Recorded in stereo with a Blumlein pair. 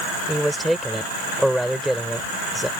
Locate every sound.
0.3 s a man speaking: straight ahead